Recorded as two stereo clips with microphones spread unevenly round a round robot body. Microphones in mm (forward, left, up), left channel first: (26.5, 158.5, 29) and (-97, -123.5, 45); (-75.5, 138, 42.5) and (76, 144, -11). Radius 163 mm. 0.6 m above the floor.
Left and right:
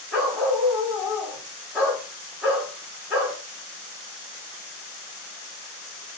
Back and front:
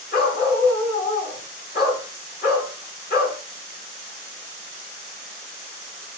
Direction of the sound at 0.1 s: 160° left.